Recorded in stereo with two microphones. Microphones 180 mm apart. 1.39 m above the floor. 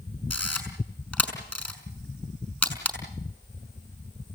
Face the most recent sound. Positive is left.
turn(degrees=5)  # may be behind; listen again after turning